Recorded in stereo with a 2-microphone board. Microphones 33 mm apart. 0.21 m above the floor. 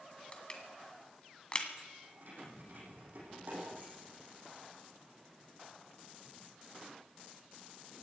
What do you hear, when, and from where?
0.3 s crushing: 30° left (ahead or behind), 2 m
2.0 s keys jangling: 65° right (ahead or behind), 6.5 m